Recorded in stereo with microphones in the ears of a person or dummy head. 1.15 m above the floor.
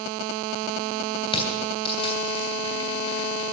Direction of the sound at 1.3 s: 30° left (ahead or behind).